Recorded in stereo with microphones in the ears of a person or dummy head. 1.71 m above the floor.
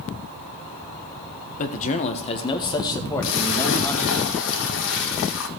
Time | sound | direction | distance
1.6 | a man speaking | 45° left (ahead or behind) | 1.3 m
3.2 | a splash | 70° left (ahead or behind) | 1.7 m